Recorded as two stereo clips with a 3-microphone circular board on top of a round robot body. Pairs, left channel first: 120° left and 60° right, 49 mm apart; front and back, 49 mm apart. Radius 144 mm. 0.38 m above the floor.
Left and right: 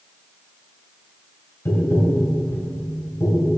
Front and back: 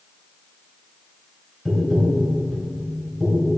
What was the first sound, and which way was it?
Tapping, 90° left.